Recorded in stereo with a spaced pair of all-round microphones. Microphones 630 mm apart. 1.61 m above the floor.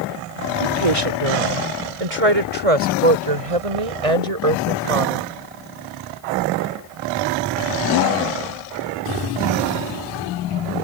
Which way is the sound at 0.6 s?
60° right (ahead or behind).